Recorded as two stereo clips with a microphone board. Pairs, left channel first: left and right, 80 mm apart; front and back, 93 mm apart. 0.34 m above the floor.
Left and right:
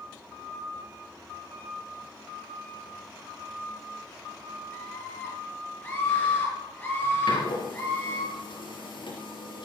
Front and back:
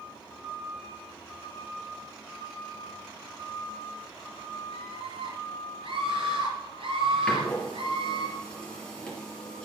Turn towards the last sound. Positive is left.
turn(degrees=80)